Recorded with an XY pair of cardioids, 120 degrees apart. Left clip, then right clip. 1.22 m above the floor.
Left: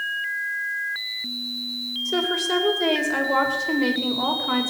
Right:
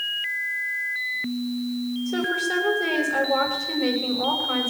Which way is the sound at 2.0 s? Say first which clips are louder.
Left 2 dB; 60° left.